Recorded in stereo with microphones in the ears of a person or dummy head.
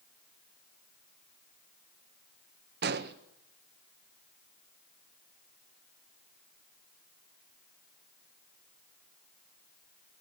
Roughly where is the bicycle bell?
I don't hear a bicycle bell.